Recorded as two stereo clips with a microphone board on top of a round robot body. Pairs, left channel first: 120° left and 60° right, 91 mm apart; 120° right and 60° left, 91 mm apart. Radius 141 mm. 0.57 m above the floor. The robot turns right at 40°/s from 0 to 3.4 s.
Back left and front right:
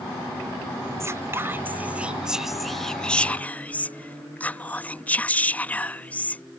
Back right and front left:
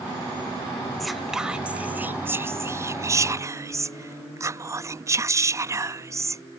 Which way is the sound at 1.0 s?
35° right.